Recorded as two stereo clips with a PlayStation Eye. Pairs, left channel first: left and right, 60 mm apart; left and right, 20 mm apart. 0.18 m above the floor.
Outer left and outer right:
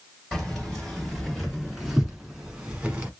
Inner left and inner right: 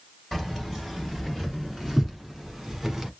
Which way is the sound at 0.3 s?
10° left (ahead or behind).